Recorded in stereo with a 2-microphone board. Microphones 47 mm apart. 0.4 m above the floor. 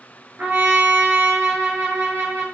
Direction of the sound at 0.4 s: 35° right (ahead or behind).